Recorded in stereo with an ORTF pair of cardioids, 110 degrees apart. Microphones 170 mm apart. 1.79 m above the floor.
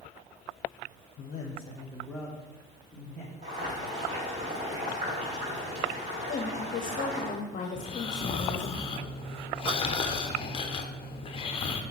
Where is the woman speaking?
45° left, 1.1 m.